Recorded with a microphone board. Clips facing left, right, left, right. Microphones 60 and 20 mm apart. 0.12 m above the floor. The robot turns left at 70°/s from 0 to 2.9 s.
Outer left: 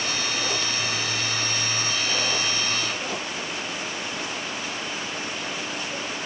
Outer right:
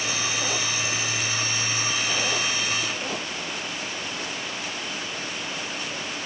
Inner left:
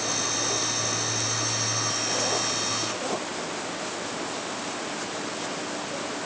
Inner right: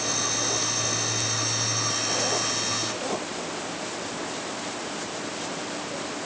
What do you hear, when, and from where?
Only background noise.